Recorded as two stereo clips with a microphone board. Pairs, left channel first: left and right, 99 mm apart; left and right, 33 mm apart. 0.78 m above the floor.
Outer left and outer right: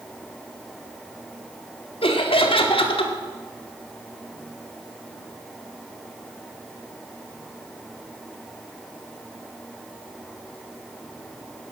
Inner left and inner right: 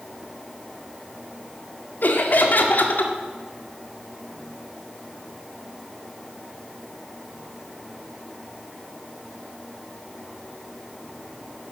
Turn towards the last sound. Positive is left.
turn(degrees=65)  # may be behind; listen again after turning